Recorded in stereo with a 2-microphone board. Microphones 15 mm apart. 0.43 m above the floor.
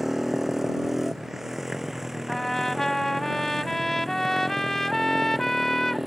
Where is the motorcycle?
20° right (ahead or behind); by 6.1 s 15° right (ahead or behind).